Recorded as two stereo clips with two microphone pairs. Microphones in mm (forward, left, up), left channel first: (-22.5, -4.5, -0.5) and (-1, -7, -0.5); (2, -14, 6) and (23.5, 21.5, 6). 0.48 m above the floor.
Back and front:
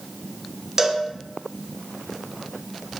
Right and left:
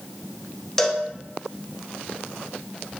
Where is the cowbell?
50° right, 0.5 m.